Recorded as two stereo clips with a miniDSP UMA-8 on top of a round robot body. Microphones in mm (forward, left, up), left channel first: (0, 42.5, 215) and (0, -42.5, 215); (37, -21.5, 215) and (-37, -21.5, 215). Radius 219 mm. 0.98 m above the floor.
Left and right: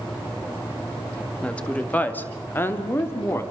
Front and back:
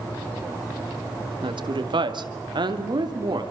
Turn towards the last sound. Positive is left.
turn(degrees=150)